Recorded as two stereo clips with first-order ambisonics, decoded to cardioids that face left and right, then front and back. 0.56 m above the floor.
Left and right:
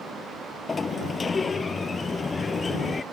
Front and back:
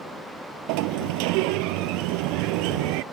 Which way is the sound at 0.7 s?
165° left.